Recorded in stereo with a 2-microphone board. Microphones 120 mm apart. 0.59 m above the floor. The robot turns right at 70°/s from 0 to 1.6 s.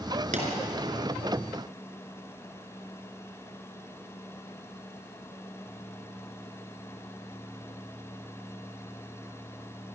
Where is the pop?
85° right, 4 m.